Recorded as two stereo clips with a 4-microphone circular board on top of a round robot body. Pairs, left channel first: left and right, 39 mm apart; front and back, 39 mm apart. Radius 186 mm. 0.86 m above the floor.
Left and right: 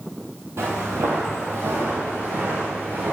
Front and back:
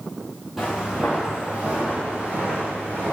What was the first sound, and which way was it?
Footsteps, 95° right.